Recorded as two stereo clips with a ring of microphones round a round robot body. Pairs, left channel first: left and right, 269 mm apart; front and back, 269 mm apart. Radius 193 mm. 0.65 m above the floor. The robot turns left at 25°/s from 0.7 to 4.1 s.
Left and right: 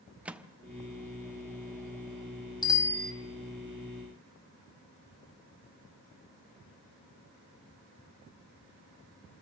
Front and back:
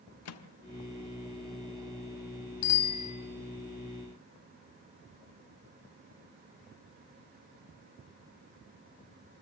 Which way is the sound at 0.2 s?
5° right.